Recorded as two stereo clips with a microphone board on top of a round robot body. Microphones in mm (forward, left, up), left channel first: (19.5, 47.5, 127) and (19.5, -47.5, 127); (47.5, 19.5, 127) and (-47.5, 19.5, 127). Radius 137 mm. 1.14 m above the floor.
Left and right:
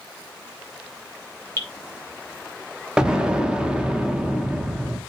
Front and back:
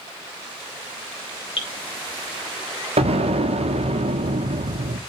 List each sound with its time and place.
1.6 s dripping: 25° left, 1.2 m
3.0 s an explosion: 170° right, 0.7 m